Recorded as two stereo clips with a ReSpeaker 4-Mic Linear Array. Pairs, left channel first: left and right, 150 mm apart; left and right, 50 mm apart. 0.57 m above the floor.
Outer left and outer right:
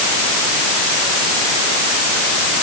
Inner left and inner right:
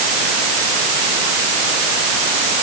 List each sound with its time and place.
Only background noise.